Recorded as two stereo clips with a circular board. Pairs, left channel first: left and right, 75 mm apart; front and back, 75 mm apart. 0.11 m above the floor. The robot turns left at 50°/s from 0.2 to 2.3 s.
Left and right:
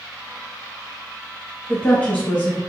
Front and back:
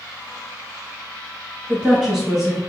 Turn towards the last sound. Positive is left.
turn(degrees=105)